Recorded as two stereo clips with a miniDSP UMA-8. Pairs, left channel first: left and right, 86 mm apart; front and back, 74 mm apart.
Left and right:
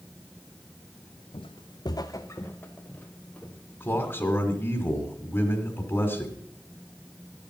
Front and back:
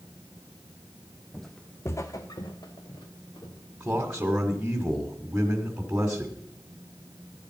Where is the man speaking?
125° left, 1.6 m.